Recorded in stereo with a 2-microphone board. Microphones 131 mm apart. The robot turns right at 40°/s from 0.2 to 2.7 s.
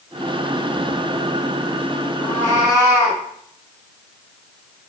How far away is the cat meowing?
About 1.6 m.